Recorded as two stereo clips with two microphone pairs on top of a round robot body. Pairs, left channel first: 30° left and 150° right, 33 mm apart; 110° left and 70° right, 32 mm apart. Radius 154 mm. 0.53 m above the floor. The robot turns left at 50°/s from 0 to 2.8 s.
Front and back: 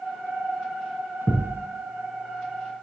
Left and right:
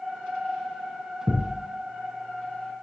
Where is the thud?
30° left, 2.5 m; by 1.7 s 10° left, 2.5 m.